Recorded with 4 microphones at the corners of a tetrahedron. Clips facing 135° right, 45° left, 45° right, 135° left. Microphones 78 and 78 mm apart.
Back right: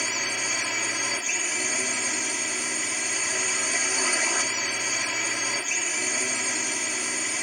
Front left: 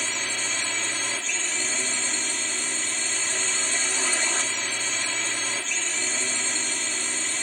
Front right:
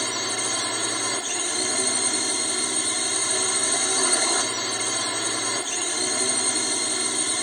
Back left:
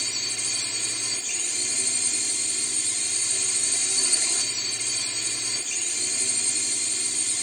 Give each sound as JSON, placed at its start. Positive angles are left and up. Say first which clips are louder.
{"t": 0.0, "sound": "a drone", "louder": "back right 1 dB, front right 9 dB", "azimuth_deg": -50}